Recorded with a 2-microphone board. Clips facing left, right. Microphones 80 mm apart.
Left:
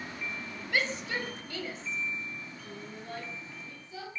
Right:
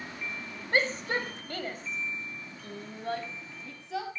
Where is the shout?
40° right (ahead or behind), 4.5 m; by 4.1 s 80° right, 6 m.